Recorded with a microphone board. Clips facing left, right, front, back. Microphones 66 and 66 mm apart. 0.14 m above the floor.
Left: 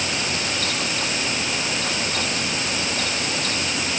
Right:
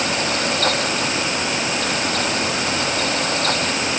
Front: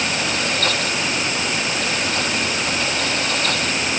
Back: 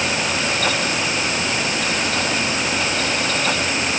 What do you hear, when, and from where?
Only background noise.